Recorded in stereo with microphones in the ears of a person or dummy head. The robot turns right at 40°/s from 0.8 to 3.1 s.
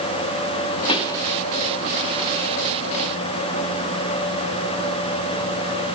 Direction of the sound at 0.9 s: 30° left (ahead or behind).